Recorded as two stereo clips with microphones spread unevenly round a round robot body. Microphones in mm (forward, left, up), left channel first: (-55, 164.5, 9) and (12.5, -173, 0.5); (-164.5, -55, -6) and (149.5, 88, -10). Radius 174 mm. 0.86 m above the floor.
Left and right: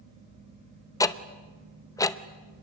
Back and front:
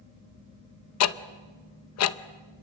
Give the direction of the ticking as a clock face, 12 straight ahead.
6 o'clock.